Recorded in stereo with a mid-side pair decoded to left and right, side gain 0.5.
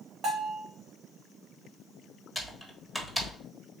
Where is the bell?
55° right, 1.6 m.